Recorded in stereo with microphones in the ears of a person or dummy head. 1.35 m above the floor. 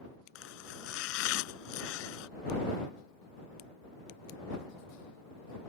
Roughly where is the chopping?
Left.